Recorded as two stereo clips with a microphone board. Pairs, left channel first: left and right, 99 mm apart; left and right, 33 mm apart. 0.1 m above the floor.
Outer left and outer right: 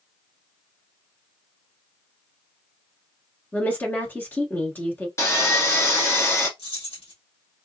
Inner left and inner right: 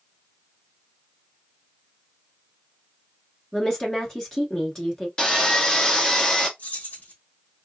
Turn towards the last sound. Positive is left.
turn(degrees=70)  # may be behind; listen again after turning